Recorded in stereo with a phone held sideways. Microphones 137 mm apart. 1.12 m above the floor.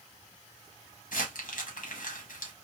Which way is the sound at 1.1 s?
85° left.